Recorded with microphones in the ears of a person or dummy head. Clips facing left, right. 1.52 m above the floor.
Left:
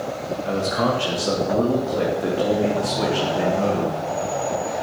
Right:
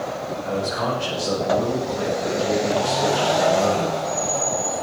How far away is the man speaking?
About 3 m.